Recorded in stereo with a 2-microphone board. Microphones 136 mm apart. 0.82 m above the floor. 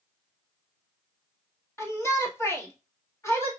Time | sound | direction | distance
1.8 | a shout | 20° left (ahead or behind) | 1.5 m